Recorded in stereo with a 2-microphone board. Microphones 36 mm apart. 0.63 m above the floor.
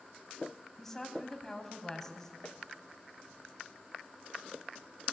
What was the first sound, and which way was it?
A woman speaking, 10° left (ahead or behind).